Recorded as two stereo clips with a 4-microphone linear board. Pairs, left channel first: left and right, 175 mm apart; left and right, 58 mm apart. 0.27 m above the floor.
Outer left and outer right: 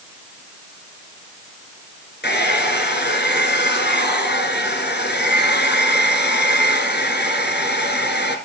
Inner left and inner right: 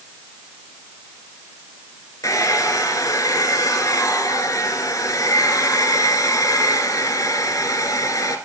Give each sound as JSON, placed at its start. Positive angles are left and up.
{"t": 2.2, "sound": "a hair dryer", "side_deg": 80, "distance_m": 1.5}